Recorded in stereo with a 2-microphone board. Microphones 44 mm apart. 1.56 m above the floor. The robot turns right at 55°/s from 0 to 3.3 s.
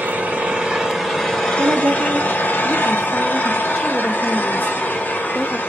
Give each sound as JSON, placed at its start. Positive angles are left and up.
{"t": 0.0, "sound": "an engine running", "azimuth_deg": -60, "distance_m": 1.9}
{"t": 1.6, "sound": "a woman speaking", "azimuth_deg": -80, "distance_m": 0.5}